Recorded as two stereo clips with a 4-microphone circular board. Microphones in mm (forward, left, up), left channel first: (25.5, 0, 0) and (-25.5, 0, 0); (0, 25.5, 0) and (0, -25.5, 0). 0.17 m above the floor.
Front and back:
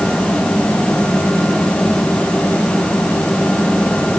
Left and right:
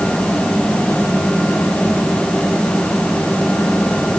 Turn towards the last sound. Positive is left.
No sound to turn to.